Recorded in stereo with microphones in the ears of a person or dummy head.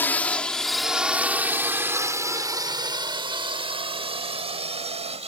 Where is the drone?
10° left (ahead or behind); by 5.3 s 35° right (ahead or behind).